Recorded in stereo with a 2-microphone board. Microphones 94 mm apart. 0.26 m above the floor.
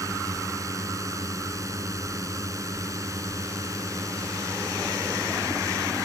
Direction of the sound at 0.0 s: 35° right (ahead or behind).